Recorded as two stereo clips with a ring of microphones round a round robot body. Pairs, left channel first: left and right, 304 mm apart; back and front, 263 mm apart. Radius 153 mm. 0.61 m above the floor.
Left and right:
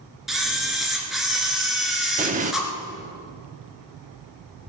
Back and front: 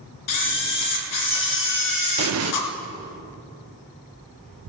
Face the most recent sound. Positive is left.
turn(degrees=-25)